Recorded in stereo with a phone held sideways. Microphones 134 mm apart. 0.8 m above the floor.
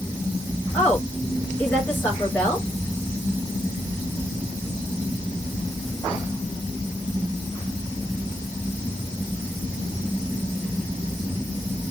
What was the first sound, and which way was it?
A woman speaking, 15° left (ahead or behind).